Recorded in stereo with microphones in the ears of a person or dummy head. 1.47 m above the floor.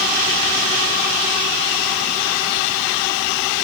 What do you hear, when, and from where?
Only background noise.